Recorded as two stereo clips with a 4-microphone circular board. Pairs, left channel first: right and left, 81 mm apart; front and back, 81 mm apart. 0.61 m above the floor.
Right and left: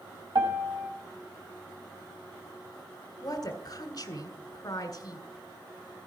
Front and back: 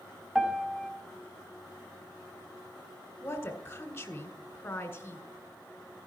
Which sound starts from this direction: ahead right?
A woman speaking, at 3.2 s.